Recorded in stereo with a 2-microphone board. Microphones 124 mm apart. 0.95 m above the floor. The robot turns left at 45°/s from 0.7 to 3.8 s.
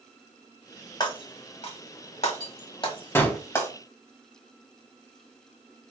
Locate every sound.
1.0 s breaking glass: 35° left (ahead or behind), 1.2 m; by 3.7 s 15° left (ahead or behind), 1.2 m
3.1 s a gunshot: 20° left (ahead or behind), 0.7 m; by 3.4 s 10° left (ahead or behind), 0.7 m